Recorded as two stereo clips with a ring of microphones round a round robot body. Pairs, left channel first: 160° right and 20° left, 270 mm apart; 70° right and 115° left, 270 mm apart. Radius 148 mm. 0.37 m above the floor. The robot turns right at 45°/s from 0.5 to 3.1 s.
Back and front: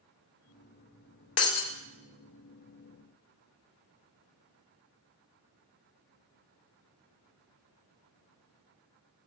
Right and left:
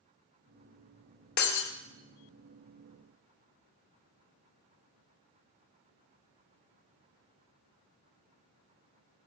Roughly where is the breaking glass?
Behind right.